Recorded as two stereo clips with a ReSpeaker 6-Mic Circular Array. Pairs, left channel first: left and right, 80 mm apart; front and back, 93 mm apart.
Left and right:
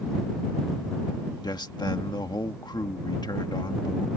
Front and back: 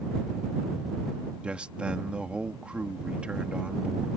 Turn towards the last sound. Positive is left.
turn(degrees=105)